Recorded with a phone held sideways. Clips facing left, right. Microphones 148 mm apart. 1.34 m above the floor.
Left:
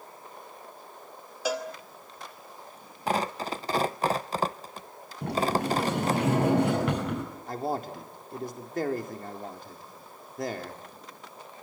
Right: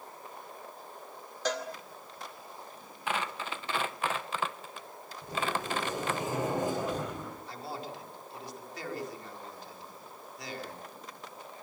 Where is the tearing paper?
40° left (ahead or behind), 0.6 m.